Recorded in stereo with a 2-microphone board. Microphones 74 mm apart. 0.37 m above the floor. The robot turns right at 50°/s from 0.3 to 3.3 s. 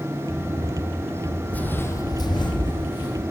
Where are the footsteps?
20° left (ahead or behind), 0.7 m; by 3.2 s 60° left (ahead or behind), 1.7 m.